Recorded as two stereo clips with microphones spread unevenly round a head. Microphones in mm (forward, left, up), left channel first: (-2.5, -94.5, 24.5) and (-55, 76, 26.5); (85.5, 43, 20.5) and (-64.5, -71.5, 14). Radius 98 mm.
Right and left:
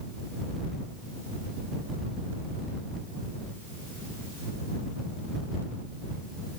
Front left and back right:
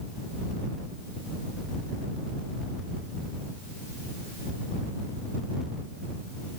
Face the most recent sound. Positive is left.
No sound to turn to.